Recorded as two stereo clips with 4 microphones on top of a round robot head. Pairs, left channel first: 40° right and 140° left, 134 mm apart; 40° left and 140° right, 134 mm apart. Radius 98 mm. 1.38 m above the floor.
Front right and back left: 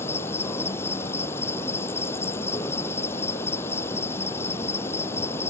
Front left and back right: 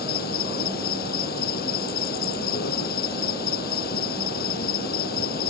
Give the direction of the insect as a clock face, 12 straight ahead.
11 o'clock.